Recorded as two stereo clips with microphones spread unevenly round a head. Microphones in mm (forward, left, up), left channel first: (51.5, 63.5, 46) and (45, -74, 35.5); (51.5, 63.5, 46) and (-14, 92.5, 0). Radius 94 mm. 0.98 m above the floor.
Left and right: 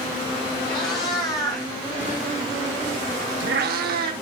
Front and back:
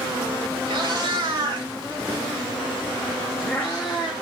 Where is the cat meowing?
150° left, 2 m; by 4.1 s 80° right, 1.1 m.